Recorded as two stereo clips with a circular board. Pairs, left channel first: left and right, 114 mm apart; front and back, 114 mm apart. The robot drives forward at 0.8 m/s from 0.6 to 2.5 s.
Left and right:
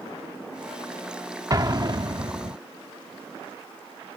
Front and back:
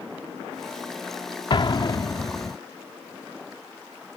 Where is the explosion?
35° right; by 2.6 s 60° right.